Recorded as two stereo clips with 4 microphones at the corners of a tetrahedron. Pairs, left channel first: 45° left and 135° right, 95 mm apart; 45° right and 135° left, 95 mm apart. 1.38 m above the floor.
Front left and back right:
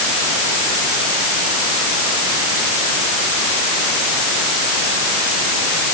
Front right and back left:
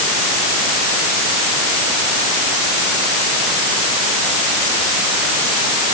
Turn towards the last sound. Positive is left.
No sound to turn to.